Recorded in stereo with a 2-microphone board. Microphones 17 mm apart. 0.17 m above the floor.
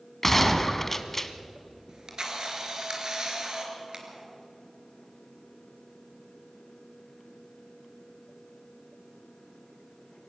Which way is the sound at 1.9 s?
40° right (ahead or behind).